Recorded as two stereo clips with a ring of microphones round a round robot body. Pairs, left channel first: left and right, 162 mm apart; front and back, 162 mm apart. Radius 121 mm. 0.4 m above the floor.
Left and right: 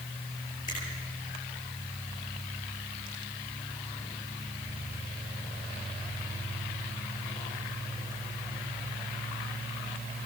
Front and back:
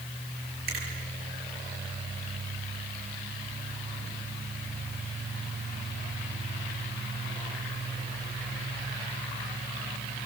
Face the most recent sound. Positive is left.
turn(degrees=160)